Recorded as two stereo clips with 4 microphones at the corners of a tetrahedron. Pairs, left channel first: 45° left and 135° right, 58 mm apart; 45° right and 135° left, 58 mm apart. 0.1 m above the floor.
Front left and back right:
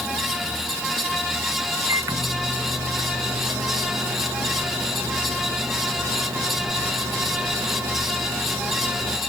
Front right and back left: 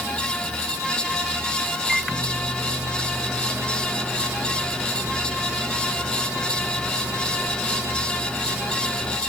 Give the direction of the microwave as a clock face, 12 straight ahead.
5 o'clock.